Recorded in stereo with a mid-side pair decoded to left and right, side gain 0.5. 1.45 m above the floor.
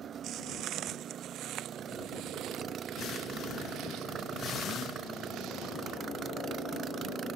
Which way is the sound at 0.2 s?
65° right.